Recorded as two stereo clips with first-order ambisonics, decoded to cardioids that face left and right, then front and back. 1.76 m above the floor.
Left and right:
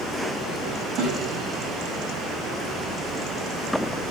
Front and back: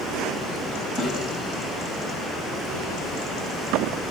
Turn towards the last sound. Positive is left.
turn(degrees=-60)